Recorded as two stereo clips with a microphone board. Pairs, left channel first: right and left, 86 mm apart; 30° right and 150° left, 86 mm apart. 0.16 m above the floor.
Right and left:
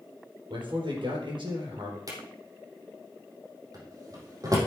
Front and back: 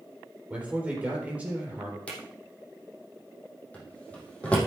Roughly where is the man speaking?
Left.